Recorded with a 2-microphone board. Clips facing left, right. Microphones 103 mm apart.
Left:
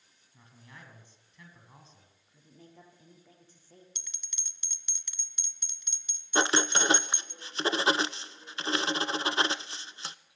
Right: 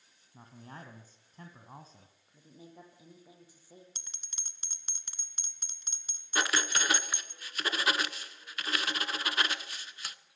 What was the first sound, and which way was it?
A man speaking, 40° right (ahead or behind).